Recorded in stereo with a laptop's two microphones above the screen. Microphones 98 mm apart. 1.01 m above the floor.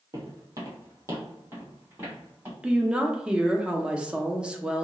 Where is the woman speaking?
10° right (ahead or behind), 0.7 m.